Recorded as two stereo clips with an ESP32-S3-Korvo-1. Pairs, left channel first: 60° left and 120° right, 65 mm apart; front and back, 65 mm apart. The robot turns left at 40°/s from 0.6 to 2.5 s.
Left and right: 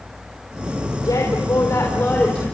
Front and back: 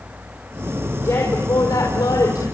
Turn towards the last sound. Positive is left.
turn(degrees=-15)